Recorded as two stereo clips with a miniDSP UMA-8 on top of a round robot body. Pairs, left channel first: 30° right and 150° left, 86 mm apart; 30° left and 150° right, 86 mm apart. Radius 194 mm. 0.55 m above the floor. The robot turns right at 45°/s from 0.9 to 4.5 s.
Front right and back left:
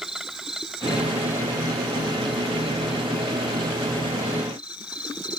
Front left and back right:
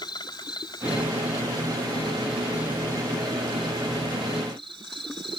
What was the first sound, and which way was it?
An insect, 65° left.